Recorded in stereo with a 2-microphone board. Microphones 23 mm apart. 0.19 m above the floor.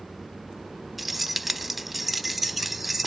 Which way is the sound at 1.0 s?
5° right (ahead or behind).